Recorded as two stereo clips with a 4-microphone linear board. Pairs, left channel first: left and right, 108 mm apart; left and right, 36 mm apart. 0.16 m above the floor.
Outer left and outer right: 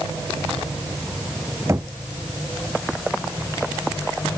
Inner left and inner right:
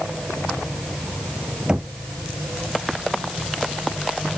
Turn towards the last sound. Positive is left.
turn(degrees=-30)  # may be behind; listen again after turning